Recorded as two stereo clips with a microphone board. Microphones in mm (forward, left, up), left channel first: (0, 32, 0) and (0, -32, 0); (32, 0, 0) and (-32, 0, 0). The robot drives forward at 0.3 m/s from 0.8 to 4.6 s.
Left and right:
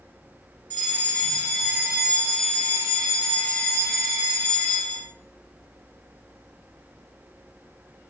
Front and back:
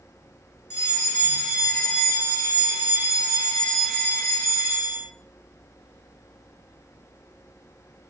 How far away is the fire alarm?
About 3.5 m.